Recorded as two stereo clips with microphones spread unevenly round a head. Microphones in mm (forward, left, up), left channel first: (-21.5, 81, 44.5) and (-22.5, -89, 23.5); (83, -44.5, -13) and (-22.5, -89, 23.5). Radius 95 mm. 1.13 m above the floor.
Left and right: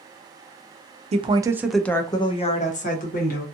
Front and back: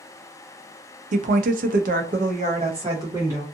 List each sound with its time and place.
1.1 s a woman speaking: 145° right, 0.6 m; by 3.5 s 125° left, 1.2 m